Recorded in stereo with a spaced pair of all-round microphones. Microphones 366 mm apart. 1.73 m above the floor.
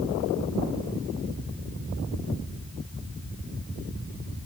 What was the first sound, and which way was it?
Only background noise.